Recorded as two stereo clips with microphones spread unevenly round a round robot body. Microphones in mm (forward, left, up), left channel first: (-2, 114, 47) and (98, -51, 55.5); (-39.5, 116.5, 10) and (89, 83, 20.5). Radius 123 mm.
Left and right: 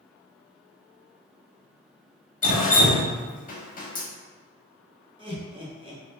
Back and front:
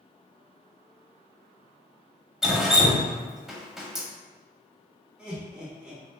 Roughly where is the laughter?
Right.